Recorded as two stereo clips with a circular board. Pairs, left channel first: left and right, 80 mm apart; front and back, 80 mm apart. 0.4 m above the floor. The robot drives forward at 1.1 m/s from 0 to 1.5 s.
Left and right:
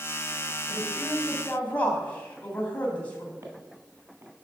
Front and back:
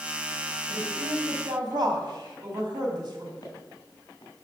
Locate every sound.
0.7 s a woman speaking: 150° left, 2 m; by 3.3 s 160° left, 3 m
3.4 s footsteps: 40° right, 2.5 m